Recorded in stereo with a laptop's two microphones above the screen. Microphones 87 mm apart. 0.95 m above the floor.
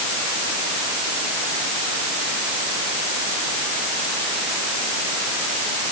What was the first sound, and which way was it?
Only background noise.